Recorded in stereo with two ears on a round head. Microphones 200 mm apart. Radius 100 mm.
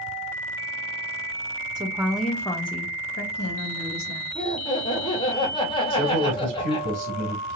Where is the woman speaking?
20° right (ahead or behind), 0.7 m; by 4.2 s 65° left (ahead or behind), 1.2 m.